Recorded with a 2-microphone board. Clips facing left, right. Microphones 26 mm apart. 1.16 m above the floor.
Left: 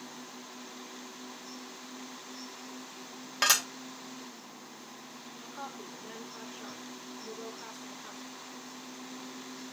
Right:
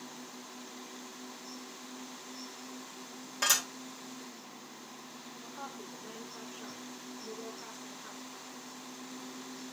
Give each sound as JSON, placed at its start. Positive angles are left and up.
{"t": 3.4, "sound": "dishes clattering", "side_deg": 50, "distance_m": 1.5}
{"t": 5.4, "sound": "a woman speaking", "side_deg": 30, "distance_m": 3.5}